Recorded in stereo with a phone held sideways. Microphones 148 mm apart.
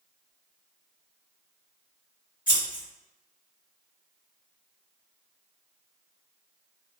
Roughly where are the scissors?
Left.